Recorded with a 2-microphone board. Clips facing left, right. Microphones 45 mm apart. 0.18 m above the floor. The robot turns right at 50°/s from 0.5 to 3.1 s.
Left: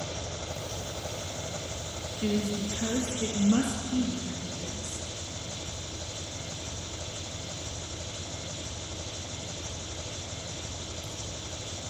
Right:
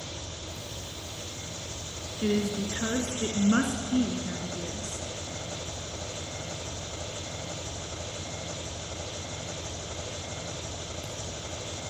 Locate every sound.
0.0 s an engine running: 90° left, 4 m; by 11.9 s 140° right, 4 m
2.2 s a woman speaking: 135° right, 1.7 m; by 5.1 s 90° right, 1.7 m